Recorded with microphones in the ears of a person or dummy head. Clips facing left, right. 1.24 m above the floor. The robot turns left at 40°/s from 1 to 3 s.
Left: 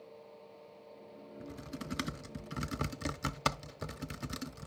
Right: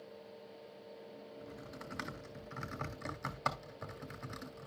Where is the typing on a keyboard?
30° left (ahead or behind), 0.6 m; by 4.7 s 45° left (ahead or behind), 0.6 m.